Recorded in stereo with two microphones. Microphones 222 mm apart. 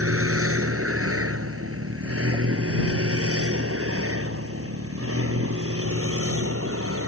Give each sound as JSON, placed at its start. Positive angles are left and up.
{"t": 0.0, "sound": "a vehicle", "side_deg": -85}